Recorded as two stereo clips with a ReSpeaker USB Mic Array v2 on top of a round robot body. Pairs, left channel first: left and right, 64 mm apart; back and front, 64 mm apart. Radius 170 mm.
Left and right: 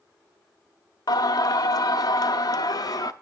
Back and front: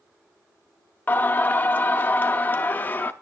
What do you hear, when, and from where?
1.1 s singing: 115° left, 0.6 m